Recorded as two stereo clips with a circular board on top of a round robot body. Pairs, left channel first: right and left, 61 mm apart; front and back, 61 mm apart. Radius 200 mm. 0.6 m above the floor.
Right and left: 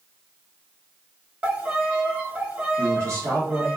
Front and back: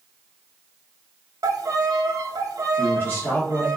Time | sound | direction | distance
1.4 | a violin | 155° left | 0.9 m
2.8 | a man speaking | 55° left | 1.8 m